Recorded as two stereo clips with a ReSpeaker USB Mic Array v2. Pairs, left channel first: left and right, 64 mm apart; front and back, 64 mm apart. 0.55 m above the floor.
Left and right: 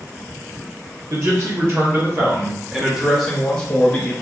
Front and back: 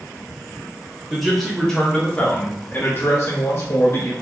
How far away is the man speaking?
About 1.2 m.